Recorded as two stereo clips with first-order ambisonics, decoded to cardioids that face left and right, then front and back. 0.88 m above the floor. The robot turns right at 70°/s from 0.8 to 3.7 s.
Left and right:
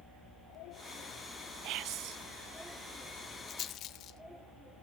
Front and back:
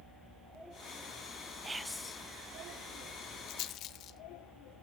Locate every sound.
1.6 s whispering: 105° right, 0.6 m; by 2.2 s 65° right, 0.6 m
3.5 s a rattle: 25° left, 1.0 m; by 4.2 s 40° left, 1.0 m